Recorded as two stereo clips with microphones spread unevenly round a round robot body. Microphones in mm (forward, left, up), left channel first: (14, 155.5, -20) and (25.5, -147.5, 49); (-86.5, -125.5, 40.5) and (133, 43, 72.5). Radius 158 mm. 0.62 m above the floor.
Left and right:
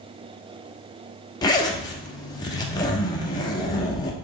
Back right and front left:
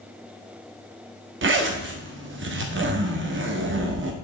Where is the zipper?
45° left, 1.1 m.